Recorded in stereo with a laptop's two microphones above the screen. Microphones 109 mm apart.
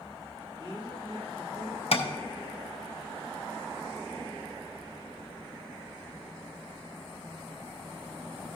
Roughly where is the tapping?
Left.